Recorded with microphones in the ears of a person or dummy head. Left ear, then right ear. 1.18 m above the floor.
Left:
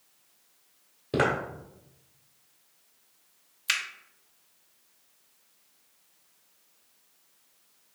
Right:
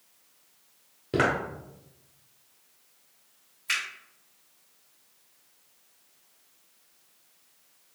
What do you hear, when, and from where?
1.1 s footsteps: centre (ahead or behind), 1.3 m
3.7 s a finger snap: 30° left (ahead or behind), 0.8 m